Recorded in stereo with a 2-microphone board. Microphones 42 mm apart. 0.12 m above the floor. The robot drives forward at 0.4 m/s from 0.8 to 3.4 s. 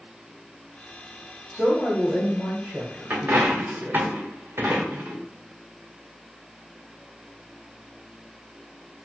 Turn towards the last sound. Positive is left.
turn(degrees=-40)  # may be behind; listen again after turning